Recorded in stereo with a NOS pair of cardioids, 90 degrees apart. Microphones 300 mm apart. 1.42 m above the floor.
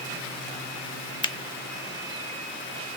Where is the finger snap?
15° left, 0.7 m.